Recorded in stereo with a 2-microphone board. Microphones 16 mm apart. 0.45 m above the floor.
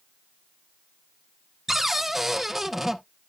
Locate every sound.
1.7 s a cupboard door: 15° right (ahead or behind), 0.6 m